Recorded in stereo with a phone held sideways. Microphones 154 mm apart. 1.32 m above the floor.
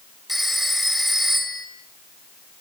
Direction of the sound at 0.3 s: Centre (ahead or behind).